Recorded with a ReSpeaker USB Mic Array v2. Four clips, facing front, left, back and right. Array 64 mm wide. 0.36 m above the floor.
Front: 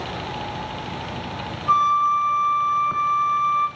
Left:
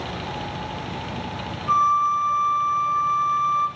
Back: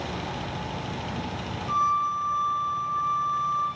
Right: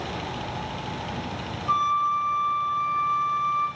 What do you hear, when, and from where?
1.7 s a flute: 30° left, 3.5 m